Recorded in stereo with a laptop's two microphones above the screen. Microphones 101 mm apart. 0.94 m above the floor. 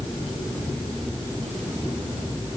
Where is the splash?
No splash in this recording.